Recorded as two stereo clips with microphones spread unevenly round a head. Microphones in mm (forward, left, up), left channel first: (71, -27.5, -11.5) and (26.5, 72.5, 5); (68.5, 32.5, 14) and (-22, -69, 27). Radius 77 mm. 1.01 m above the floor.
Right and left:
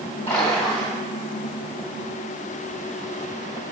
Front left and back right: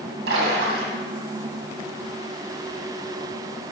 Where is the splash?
140° right, 2 m.